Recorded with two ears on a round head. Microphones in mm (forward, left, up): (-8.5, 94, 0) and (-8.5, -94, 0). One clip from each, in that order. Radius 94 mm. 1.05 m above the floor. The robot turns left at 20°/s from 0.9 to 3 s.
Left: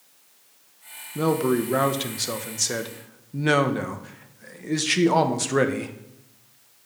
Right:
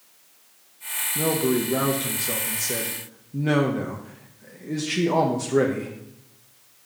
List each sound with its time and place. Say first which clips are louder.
1.1 s a man speaking: left 2 dB; 105° left, 1.1 m; by 5.9 s 70° left, 1.1 m